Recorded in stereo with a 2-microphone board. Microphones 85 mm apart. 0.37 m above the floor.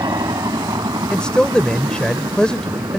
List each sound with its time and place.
0.0 s a helicopter: 55° right (ahead or behind)
1.1 s a man speaking: 10° left (ahead or behind)